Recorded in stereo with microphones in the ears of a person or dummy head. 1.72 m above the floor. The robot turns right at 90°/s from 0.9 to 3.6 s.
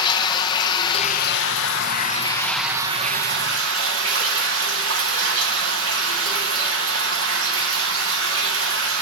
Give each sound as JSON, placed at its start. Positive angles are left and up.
{"t": 0.0, "sound": "running water", "azimuth_deg": 25, "distance_m": 1.6}